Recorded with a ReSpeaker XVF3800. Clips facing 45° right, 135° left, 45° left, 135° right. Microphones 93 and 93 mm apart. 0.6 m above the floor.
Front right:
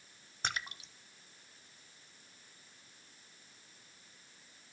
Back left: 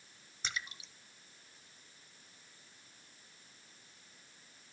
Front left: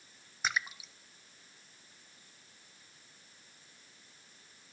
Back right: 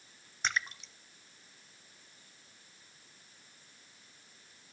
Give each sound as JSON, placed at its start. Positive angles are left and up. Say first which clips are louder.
{"t": 0.4, "sound": "a splash", "louder": "front right 3 dB, even", "azimuth_deg": -40, "distance_m": 0.6}